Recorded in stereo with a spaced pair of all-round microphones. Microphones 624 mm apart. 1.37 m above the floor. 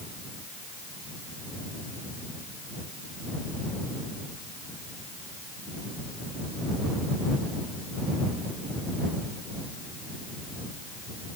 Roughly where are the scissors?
No scissors in this recording.